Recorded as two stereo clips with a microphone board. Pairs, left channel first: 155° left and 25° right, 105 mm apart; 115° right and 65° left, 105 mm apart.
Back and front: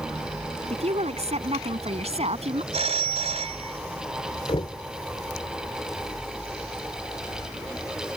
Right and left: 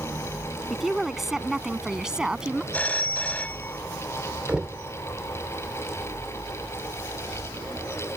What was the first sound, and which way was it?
A woman speaking, 20° right.